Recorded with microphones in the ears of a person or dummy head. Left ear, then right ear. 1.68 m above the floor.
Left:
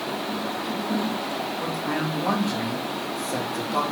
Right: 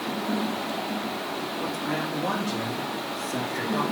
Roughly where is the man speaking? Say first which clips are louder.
Even; centre.